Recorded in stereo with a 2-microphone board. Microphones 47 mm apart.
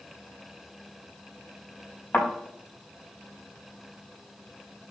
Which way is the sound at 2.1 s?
35° left (ahead or behind).